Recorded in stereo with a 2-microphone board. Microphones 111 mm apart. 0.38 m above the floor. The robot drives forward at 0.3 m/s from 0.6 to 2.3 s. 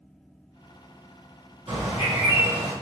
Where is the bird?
70° right (ahead or behind), 1.9 m; by 2.7 s 65° right (ahead or behind), 2.0 m.